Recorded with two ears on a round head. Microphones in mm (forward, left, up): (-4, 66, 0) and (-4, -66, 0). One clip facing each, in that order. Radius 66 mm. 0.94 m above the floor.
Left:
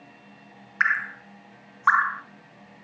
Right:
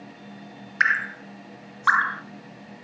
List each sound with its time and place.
0.8 s dripping: 40° right (ahead or behind), 1.0 m